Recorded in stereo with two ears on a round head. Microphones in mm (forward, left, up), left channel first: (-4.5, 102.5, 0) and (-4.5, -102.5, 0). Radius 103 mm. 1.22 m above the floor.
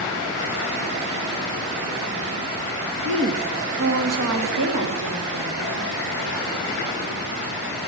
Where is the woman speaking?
55° right (ahead or behind), 1.2 m; by 5.9 s 60° right (ahead or behind), 2.5 m.